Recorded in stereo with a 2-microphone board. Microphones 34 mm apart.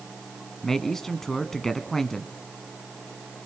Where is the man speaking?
15° left (ahead or behind), 1.0 m.